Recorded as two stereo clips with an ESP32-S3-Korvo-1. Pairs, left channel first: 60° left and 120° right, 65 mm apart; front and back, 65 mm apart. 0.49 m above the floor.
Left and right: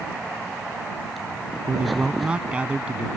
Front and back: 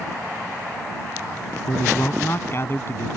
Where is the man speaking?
50° right.